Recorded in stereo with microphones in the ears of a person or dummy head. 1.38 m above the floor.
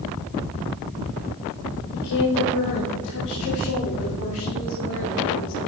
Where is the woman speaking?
70° left (ahead or behind), 1.8 m; by 5.7 s 85° left, 4.5 m.